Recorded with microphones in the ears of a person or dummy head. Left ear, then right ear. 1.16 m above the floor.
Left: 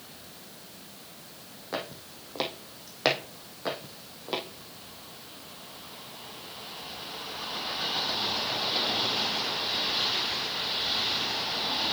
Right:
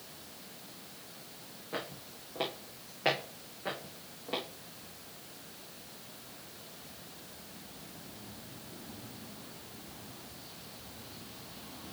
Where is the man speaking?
No man speaking in this recording.